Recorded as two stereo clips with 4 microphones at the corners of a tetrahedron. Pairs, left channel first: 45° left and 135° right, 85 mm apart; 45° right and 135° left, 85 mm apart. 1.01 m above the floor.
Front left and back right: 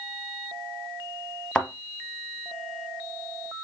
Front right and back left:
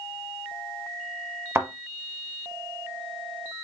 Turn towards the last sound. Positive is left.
turn(degrees=115)